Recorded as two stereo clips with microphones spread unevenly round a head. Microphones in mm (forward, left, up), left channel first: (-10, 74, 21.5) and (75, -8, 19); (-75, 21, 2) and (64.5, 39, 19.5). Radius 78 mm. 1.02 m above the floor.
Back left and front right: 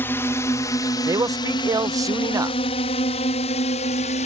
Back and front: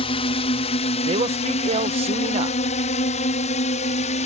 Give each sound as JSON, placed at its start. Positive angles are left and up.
{"t": 0.0, "sound": "a drone", "azimuth_deg": -155}
{"t": 1.1, "sound": "a man speaking", "azimuth_deg": -10}